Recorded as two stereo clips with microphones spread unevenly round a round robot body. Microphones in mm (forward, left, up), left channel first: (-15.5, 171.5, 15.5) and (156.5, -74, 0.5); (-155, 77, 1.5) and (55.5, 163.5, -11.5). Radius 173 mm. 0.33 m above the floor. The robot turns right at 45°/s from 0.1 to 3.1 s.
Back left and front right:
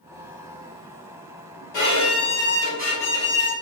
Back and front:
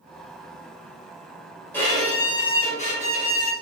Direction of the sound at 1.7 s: 120° left.